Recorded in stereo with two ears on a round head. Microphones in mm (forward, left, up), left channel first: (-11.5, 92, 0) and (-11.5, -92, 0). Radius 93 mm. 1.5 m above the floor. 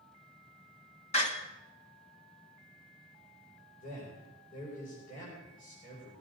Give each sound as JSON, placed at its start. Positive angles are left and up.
{"t": 1.1, "sound": "a door slam", "side_deg": 30, "distance_m": 2.5}
{"t": 3.8, "sound": "a man speaking", "side_deg": 40, "distance_m": 6.0}